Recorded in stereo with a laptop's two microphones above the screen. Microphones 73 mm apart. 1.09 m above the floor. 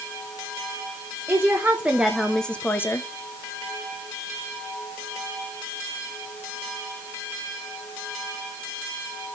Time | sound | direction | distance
1.3 | a woman speaking | 35° right (ahead or behind) | 0.9 m